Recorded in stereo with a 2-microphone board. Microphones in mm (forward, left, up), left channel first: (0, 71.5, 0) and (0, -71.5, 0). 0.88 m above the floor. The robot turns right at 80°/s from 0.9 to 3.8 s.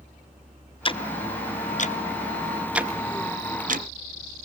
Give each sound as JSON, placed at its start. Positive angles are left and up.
{"t": 0.8, "sound": "ticking", "side_deg": 35, "distance_m": 0.6}